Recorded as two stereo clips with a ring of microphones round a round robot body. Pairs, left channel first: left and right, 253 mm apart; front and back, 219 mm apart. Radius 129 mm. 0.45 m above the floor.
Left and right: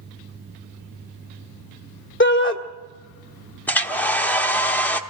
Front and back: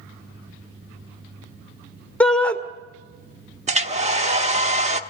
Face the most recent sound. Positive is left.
turn(degrees=170)